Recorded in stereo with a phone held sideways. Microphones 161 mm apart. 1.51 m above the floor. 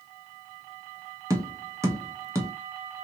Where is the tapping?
15° right (ahead or behind), 0.7 m.